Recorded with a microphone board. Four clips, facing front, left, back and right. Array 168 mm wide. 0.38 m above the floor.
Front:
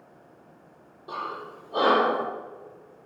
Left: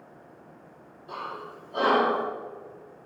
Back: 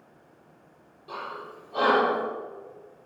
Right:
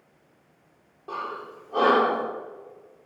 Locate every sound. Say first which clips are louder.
1.1 s breathing: right 3 dB, front 3 dB; 60° right, 4.5 m